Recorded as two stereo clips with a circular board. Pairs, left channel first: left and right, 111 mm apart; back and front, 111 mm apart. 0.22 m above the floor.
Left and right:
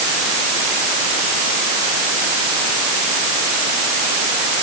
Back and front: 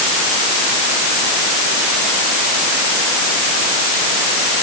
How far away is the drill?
No drill in this recording.